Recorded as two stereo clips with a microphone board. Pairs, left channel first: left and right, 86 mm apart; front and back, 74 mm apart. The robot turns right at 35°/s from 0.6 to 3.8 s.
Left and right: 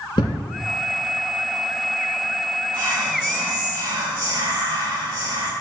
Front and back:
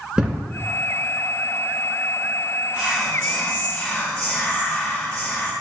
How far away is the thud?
About 1.2 m.